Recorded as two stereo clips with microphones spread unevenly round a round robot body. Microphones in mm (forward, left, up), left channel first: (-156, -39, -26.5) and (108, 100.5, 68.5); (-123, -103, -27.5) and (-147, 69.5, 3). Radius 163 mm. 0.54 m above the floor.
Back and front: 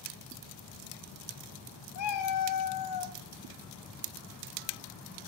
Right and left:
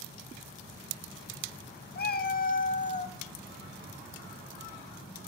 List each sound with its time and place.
1.9 s a cat meowing: 110° right, 1.8 m; by 3.2 s 135° right, 1.7 m